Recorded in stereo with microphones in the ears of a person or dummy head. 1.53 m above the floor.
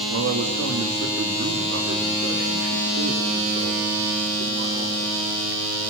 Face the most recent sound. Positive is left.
turn(degrees=-70)  # may be behind; listen again after turning